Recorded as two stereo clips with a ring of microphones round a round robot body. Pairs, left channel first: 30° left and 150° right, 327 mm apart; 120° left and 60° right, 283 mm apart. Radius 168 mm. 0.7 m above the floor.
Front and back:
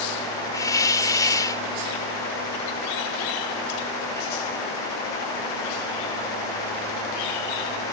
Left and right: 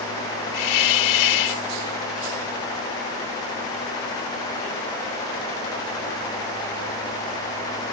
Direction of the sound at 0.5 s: 110° left.